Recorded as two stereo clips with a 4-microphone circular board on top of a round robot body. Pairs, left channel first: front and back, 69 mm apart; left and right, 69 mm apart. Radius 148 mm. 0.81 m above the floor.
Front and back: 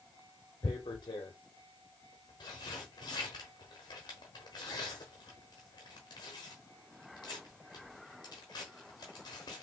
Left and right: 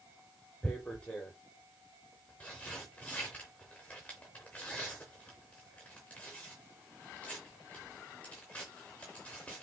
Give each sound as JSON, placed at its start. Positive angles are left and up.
{"t": 0.6, "sound": "tearing paper", "azimuth_deg": 20, "distance_m": 0.5}